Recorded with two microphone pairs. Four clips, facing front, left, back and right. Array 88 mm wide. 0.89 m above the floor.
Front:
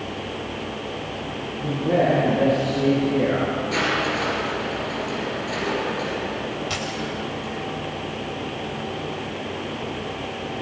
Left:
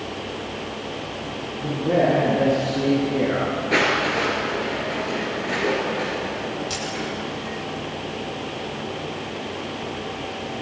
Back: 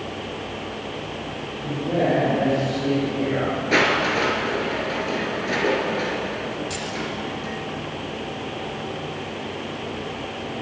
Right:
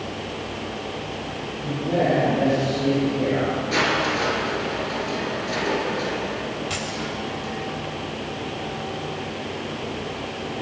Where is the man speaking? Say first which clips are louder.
Left 3 dB, front 2 dB; 60° left, 9 m; by 3.5 s 55° left, 10 m.